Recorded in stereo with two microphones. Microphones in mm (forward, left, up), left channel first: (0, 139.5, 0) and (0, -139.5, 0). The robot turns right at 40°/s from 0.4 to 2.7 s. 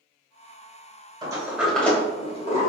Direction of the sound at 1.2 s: 15° right (ahead or behind).